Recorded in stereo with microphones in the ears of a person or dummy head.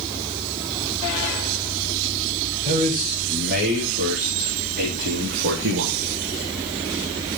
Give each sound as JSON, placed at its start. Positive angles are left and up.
{"t": 2.6, "sound": "a man speaking", "side_deg": -35, "distance_m": 5.0}